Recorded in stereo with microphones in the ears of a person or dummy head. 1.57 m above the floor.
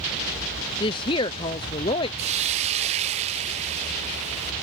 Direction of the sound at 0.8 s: 25° left (ahead or behind).